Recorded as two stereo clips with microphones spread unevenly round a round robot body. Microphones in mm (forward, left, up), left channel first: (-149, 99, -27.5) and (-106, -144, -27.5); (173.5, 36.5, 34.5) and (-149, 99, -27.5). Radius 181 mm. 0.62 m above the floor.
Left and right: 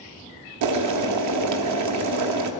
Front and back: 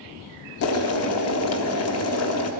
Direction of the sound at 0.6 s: 65° right.